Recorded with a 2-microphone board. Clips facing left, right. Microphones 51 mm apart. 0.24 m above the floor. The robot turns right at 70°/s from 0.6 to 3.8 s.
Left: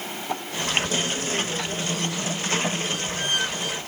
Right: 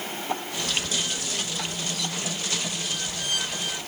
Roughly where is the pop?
No pop in this recording.